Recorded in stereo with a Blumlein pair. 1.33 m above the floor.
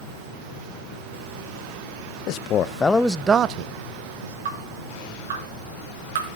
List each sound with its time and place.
2.3 s a man speaking: 40° left, 0.9 m; by 4.3 s 70° right, 1.0 m
4.5 s dripping: 55° right, 5 m